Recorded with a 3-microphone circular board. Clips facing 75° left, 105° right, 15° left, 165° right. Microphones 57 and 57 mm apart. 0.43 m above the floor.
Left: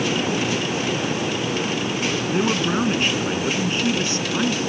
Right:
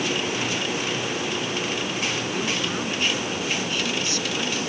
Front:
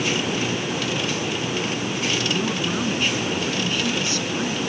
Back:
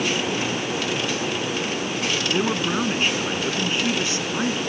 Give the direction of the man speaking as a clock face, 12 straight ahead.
8 o'clock.